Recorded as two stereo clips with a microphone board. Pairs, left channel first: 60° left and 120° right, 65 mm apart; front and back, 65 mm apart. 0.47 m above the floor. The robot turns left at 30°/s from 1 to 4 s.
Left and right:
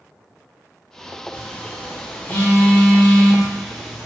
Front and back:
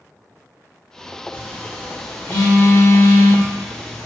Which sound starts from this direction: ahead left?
A phone buzzing, at 1.3 s.